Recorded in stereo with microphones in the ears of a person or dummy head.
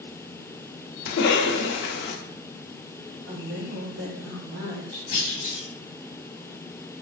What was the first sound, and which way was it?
A cough, 60° left (ahead or behind).